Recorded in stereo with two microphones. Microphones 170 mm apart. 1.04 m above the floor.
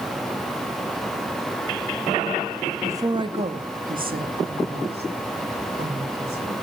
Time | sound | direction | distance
2.8 | a woman speaking | 15° right (ahead or behind) | 1.2 m